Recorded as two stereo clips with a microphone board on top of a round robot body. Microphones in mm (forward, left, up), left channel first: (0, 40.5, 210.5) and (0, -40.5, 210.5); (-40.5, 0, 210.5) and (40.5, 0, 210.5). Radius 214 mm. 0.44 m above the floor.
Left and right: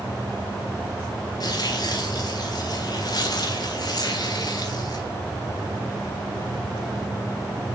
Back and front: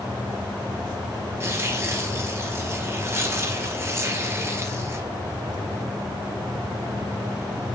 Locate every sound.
1.4 s tearing paper: 55° left, 2 m